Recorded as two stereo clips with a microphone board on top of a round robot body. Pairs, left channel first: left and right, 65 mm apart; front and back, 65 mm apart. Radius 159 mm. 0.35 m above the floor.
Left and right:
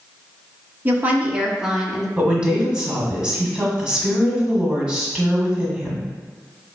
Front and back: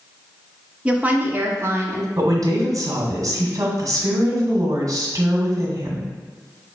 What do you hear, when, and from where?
0.8 s a woman speaking: 120° right, 1.1 m; by 2.1 s 175° right, 1.2 m
2.2 s a woman speaking: 165° right, 1.6 m